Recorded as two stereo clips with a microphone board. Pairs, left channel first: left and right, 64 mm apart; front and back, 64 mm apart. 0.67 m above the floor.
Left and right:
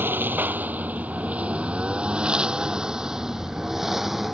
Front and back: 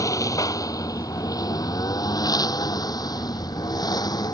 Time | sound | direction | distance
0.0 | a lawn mower | 35° right | ?